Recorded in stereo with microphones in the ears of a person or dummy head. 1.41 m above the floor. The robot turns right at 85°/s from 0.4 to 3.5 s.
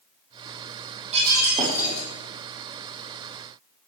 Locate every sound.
1.1 s breaking glass: 35° right, 6.5 m; by 2.1 s 45° left, 6.5 m